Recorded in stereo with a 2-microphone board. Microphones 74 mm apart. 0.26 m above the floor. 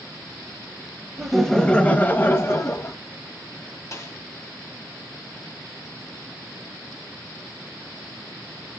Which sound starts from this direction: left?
A snare drum, at 3.9 s.